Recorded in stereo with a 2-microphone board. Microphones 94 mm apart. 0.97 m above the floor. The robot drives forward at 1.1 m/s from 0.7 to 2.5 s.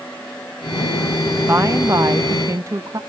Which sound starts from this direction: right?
A woman speaking, at 1.5 s.